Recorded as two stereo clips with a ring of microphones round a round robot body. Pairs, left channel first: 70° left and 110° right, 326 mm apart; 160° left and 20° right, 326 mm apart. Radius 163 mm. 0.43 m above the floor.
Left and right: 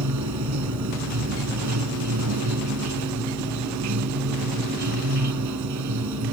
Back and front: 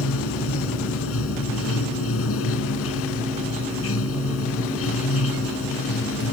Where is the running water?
150° right.